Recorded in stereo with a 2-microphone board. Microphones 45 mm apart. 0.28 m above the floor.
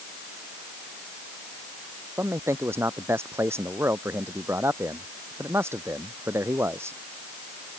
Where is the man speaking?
75° right (ahead or behind).